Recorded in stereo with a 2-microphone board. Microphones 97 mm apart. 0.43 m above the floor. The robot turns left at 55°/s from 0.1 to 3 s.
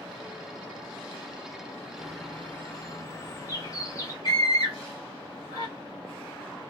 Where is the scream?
45° left (ahead or behind), 1.8 m.